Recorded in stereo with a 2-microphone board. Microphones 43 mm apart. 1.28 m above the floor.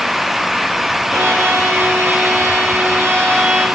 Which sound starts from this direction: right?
A violin, at 1.1 s.